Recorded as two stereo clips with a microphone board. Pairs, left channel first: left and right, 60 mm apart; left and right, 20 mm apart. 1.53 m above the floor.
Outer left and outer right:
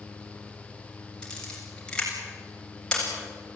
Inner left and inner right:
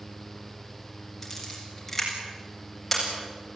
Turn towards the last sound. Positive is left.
turn(degrees=15)  # may be behind; listen again after turning